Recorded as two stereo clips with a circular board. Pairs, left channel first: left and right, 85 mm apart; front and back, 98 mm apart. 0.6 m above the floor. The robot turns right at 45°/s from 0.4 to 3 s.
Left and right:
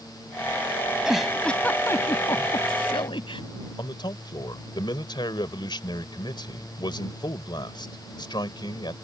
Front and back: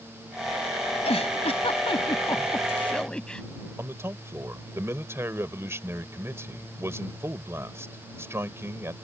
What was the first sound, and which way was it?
A giggle, 10° right.